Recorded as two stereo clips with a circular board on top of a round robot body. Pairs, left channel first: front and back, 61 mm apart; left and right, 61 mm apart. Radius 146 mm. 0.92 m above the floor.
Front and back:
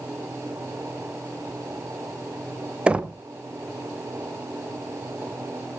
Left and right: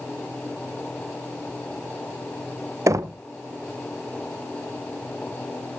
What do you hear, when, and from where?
2.9 s knocking: 110° right, 0.8 m